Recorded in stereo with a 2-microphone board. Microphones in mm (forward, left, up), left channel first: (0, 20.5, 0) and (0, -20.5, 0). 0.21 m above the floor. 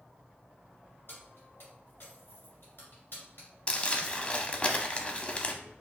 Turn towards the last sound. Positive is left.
turn(degrees=25)  # may be behind; listen again after turning